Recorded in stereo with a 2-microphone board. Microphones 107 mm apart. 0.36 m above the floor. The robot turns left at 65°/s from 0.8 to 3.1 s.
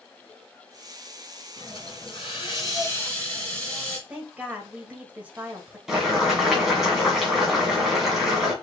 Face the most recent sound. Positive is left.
turn(degrees=-5)  # may be behind; listen again after turning